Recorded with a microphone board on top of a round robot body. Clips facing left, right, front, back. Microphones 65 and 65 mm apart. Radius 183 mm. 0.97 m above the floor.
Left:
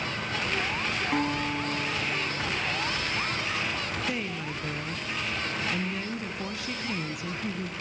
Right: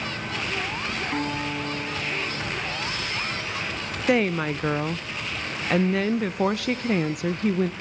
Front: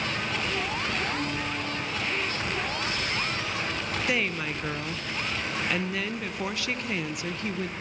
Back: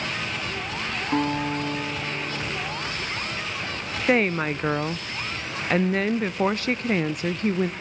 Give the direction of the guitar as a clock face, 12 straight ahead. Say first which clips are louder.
Left 1 dB, back 6 dB; 6 o'clock.